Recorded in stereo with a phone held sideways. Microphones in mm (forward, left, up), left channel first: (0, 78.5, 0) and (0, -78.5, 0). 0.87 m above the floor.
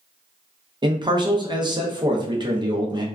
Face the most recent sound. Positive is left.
turn(degrees=-30)  # may be behind; listen again after turning